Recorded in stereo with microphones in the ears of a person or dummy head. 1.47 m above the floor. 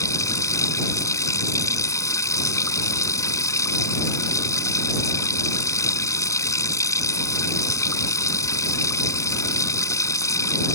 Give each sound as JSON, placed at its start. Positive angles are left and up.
{"t": 0.0, "sound": "running water", "side_deg": 20}